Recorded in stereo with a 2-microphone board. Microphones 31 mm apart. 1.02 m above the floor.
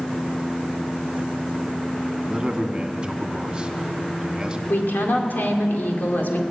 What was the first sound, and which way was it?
A man speaking, 25° right (ahead or behind).